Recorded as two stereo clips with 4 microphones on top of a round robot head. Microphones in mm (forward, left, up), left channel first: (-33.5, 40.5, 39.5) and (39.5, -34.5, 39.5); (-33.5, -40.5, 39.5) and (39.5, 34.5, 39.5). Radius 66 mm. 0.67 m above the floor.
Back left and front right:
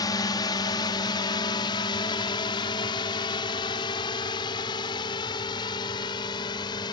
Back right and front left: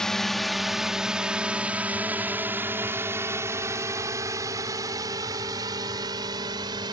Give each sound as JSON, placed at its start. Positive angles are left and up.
{"t": 0.0, "sound": "a drone", "azimuth_deg": 145}